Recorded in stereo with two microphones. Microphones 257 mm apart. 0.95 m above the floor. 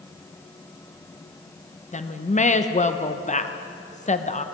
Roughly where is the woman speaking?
Left.